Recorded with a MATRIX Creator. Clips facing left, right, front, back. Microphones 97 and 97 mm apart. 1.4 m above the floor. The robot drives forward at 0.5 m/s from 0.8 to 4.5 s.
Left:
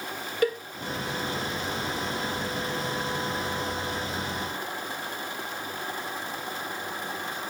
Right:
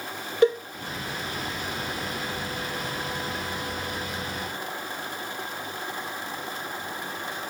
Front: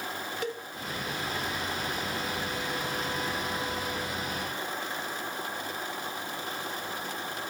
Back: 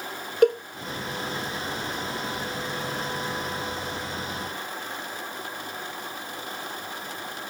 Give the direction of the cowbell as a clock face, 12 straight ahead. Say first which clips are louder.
Right 6 dB, back 18 dB; 5 o'clock.